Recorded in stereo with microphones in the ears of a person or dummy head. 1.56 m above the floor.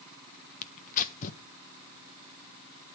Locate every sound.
0.6 s tearing paper: 50° left (ahead or behind), 1.3 m